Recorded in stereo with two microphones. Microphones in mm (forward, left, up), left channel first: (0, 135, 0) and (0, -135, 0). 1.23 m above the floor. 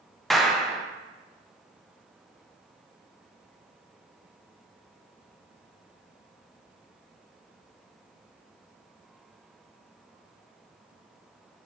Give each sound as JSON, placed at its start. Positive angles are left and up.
{"t": 0.3, "sound": "a clap", "side_deg": 0, "distance_m": 0.6}